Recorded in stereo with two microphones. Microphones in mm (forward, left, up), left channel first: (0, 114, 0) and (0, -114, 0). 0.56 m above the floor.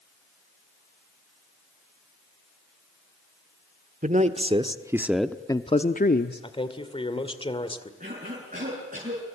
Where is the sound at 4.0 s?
35° right (ahead or behind), 1.5 m; by 6.5 s 50° left (ahead or behind), 1.2 m.